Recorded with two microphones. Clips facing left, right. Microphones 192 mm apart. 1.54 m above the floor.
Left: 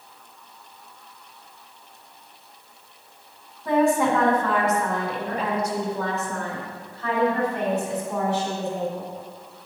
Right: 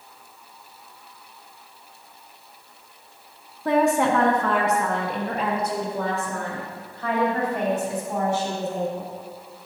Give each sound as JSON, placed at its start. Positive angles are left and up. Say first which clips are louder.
{"t": 3.6, "sound": "a woman speaking", "louder": "even", "side_deg": -80, "distance_m": 1.1}